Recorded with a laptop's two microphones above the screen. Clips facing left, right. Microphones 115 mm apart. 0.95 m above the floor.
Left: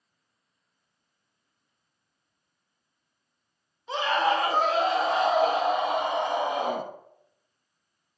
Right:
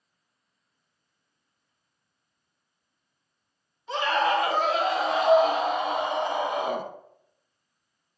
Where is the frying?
I don't hear frying.